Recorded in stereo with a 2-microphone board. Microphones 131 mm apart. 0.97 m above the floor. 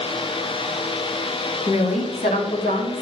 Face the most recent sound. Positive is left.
turn(degrees=80)